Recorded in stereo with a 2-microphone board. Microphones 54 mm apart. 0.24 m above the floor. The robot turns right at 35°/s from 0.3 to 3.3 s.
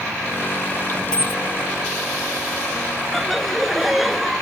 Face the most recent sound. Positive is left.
turn(degrees=0)  # may be behind; listen again after turning